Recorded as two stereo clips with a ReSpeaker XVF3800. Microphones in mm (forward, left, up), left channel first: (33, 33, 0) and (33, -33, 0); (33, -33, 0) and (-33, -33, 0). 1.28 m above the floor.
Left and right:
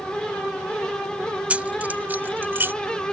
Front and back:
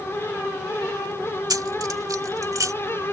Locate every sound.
1.5 s keys jangling: 160° right; by 2.7 s 145° right